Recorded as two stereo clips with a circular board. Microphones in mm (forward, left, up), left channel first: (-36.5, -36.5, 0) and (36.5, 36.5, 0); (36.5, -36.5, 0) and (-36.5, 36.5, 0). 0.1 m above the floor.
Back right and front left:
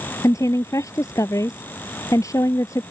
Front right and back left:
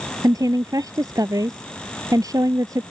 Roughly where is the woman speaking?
Behind.